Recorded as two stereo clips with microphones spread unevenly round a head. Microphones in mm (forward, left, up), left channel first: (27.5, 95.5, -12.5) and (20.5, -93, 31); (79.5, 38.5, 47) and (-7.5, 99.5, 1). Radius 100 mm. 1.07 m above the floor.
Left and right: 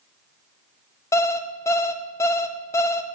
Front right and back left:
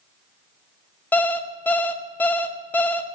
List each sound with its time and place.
1.1 s an alarm clock: 5° left, 0.7 m